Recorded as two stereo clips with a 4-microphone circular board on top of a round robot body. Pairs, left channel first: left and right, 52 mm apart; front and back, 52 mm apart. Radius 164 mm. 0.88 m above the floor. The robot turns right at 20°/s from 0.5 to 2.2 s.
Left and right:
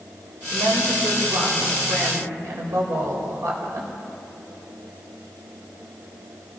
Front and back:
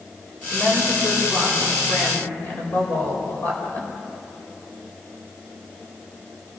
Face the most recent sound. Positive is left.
turn(degrees=-55)